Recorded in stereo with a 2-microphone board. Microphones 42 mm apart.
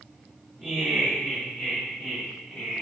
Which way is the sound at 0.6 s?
Centre (ahead or behind).